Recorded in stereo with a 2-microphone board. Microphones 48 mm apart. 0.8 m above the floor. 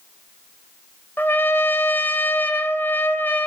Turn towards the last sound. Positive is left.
turn(degrees=50)  # may be behind; listen again after turning